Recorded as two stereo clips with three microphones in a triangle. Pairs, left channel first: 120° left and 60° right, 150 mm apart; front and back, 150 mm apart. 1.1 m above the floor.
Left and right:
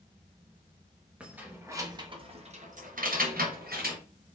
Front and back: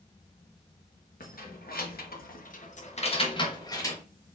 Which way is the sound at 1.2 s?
20° left.